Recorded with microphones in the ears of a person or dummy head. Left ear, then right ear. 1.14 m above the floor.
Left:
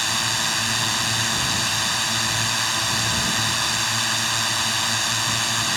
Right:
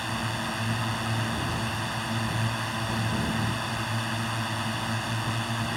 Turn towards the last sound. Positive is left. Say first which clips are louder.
# left 9 dB
turn(degrees=45)  # may be behind; listen again after turning